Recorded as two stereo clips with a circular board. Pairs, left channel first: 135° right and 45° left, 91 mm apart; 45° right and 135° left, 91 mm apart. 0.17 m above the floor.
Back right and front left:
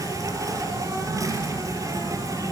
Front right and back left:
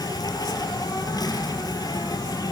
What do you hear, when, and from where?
0.0 s an insect: 5° right, 4.5 m